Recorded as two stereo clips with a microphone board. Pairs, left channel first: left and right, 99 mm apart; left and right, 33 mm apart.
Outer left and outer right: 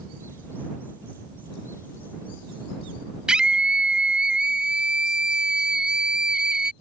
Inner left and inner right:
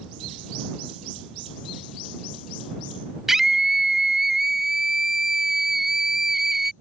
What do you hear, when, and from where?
3.3 s a scream: 10° right (ahead or behind)